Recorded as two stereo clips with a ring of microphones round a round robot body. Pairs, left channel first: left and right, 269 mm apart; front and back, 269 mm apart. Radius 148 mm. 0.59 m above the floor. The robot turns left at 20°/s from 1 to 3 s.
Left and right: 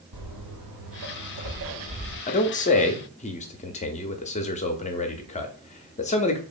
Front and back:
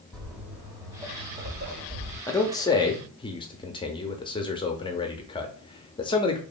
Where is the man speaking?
70° left, 0.6 m; by 6.4 s 55° left, 0.6 m.